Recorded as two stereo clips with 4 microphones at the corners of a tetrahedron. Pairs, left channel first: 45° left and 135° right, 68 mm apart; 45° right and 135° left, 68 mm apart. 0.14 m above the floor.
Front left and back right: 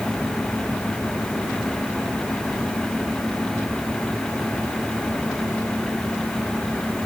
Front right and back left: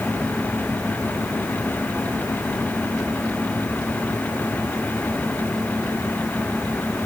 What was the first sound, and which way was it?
Only background noise.